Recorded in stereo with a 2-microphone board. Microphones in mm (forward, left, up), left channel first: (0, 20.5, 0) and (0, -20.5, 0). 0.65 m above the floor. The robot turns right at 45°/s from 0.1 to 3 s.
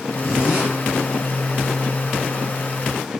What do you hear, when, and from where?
0.2 s a zipper: 5° right (ahead or behind), 8 m; by 0.7 s 25° right (ahead or behind), 8 m